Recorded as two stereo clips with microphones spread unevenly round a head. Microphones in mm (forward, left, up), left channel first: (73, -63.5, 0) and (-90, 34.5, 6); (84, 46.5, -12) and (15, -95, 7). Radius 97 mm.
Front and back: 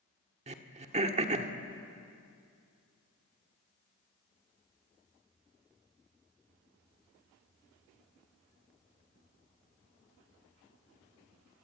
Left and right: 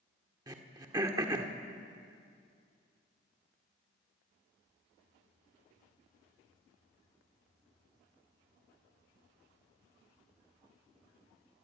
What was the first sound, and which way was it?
Throat clearing, 170° right.